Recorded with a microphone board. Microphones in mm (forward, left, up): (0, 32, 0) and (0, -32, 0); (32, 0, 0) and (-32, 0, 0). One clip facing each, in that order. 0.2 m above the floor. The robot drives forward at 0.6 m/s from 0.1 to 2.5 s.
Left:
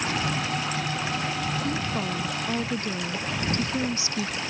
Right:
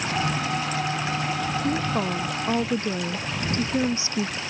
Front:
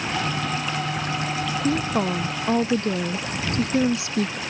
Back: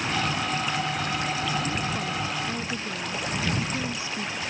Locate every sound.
1.6 s a woman speaking: 25° right